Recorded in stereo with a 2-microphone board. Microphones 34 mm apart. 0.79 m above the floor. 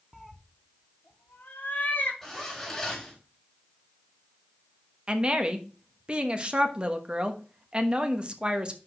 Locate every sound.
0.1 s a cat meowing: 5° right (ahead or behind), 0.7 m; by 2.1 s 55° left (ahead or behind), 2 m
2.2 s a zipper: 10° left (ahead or behind), 4 m
5.1 s a woman speaking: 30° right (ahead or behind), 1.1 m